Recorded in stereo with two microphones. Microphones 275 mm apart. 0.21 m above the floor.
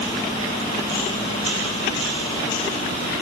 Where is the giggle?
I don't hear a giggle.